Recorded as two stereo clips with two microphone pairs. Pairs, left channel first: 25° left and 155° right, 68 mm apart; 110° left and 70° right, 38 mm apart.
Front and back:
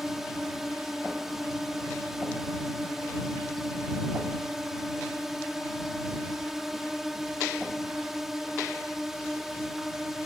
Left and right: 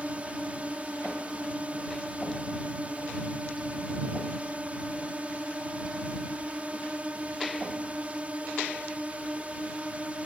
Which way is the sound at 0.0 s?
70° right.